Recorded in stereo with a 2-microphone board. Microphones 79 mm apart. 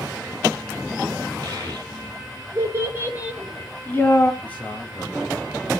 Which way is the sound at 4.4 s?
20° left (ahead or behind).